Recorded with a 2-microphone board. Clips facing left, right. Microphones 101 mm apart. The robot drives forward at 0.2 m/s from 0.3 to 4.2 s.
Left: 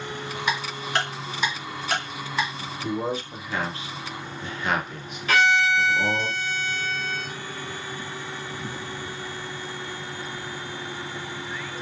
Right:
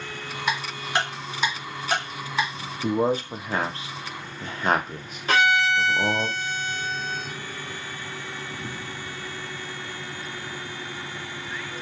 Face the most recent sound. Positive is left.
turn(degrees=-30)  # may be behind; listen again after turning